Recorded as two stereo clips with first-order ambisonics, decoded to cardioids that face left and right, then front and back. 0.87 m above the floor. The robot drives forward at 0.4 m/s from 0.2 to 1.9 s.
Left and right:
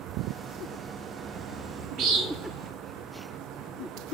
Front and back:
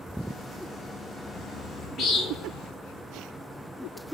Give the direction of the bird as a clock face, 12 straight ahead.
1 o'clock.